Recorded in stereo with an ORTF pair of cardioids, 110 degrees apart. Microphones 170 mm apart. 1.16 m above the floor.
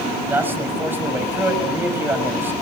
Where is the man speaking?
10° right, 6 m.